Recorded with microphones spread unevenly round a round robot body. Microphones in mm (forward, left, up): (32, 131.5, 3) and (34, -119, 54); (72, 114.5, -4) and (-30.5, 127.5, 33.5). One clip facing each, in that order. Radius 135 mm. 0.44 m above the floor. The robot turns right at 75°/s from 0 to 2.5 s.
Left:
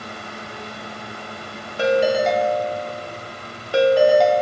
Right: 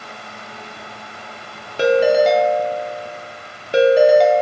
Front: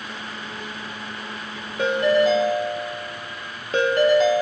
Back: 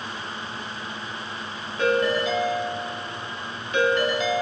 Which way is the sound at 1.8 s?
65° right.